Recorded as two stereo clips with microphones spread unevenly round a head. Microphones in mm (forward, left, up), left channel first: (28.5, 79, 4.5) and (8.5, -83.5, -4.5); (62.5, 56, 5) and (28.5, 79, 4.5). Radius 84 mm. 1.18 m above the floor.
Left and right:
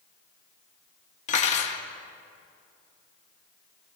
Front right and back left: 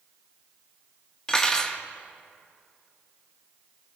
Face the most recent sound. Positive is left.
turn(degrees=35)